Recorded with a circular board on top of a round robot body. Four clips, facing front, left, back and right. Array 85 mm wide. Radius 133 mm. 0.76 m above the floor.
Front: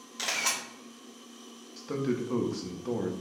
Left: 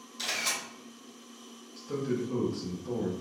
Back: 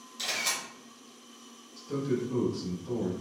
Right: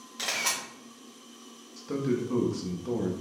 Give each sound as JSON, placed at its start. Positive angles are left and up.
{"t": 0.2, "sound": "a camera shutter", "azimuth_deg": -45, "distance_m": 1.4}
{"t": 1.8, "sound": "a man speaking", "azimuth_deg": -20, "distance_m": 1.1}